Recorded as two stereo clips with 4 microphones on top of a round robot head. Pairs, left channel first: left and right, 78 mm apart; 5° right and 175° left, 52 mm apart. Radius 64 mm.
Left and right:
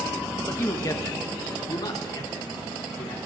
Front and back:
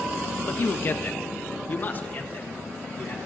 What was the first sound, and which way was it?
A man speaking, 35° left.